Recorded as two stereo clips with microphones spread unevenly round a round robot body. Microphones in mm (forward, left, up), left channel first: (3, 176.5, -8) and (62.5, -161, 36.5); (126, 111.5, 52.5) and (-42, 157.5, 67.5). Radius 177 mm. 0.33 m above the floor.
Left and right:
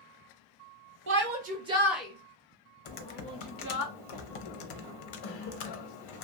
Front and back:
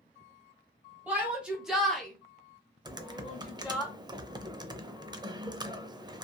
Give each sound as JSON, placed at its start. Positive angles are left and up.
{"t": 1.1, "sound": "a shout", "azimuth_deg": -115, "distance_m": 0.9}
{"t": 2.9, "sound": "typing on a keyboard", "azimuth_deg": 90, "distance_m": 0.6}